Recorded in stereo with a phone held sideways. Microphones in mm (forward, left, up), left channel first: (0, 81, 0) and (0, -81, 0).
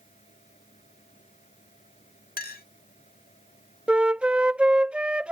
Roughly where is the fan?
Left.